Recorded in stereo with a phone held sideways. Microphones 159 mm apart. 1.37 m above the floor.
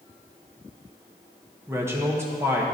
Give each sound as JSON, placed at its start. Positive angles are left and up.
{"t": 1.7, "sound": "a man speaking", "side_deg": -15, "distance_m": 1.2}